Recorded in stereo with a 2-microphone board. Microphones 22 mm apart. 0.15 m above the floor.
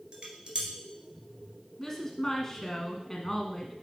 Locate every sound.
0.1 s dishes clattering: 50° right (ahead or behind), 1.5 m
1.8 s a woman speaking: 15° left (ahead or behind), 1.3 m